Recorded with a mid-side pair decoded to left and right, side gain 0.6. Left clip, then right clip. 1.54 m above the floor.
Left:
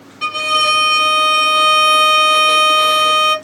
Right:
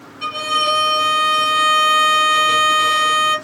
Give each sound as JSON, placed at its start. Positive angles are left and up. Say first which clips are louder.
{"t": 0.2, "sound": "a violin", "louder": "left 4 dB", "azimuth_deg": 40, "distance_m": 1.1}